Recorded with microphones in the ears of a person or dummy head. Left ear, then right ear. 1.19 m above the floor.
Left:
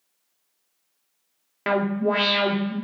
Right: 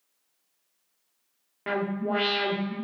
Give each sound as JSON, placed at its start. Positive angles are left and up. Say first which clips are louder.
{"t": 1.7, "sound": "an alarm", "louder": "left 6 dB", "side_deg": 70, "distance_m": 0.6}